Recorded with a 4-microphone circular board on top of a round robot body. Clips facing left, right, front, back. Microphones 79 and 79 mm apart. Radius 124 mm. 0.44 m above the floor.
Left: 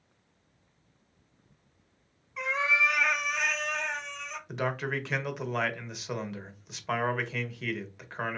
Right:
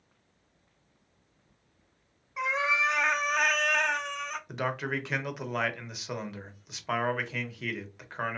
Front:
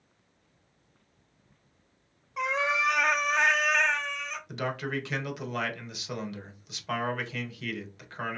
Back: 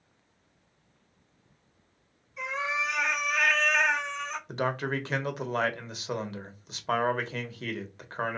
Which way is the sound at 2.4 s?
15° right.